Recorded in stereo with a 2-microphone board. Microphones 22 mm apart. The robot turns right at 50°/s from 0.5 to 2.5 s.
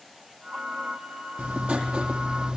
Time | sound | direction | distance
1.4 | writing | 90° right | 4.5 m